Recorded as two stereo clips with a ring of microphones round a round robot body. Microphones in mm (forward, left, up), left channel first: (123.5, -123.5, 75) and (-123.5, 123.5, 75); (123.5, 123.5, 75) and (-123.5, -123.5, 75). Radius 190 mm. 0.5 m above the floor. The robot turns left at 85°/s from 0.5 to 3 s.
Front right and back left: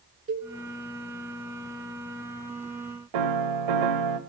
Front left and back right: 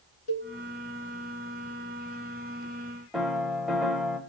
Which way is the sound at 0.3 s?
70° left.